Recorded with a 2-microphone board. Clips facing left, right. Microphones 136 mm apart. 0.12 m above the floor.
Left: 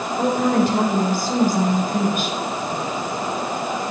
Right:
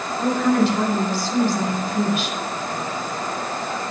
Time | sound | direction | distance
0.2 | a woman speaking | 50° left (ahead or behind) | 5.5 m